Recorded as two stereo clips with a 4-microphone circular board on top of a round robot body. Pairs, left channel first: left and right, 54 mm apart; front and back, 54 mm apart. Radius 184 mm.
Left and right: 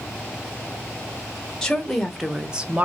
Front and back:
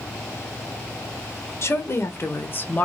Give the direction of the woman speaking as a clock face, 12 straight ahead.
12 o'clock.